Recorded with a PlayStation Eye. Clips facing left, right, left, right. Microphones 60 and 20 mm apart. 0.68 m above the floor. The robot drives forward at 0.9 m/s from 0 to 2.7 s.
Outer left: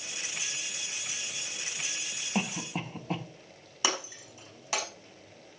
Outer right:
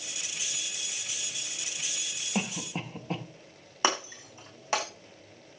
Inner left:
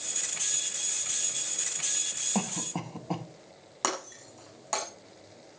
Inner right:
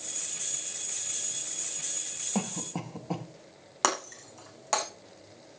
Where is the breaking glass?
40° right (ahead or behind), 5.5 m.